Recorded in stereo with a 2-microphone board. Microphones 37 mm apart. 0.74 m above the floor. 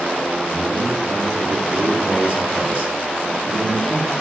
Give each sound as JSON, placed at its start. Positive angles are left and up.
{"t": 0.5, "sound": "a man speaking", "side_deg": -35, "distance_m": 1.7}